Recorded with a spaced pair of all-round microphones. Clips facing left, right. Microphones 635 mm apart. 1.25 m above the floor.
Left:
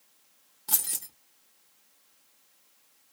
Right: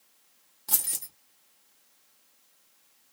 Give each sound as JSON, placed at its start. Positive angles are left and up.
{"t": 0.7, "sound": "keys jangling", "side_deg": -5, "distance_m": 0.6}